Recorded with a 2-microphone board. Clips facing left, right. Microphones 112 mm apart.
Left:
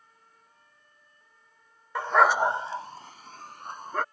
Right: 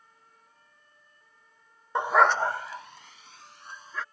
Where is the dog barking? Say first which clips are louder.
Even; 25° right (ahead or behind); by 4.0 s 50° left (ahead or behind).